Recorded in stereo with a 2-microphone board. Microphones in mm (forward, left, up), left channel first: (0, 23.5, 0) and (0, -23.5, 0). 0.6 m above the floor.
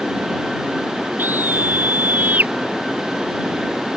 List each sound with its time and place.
1.2 s a scream: 40° right (ahead or behind); by 2.5 s 35° right (ahead or behind)